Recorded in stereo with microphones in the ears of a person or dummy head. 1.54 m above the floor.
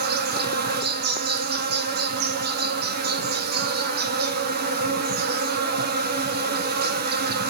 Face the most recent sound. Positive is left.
turn(degrees=-50)  # may be behind; listen again after turning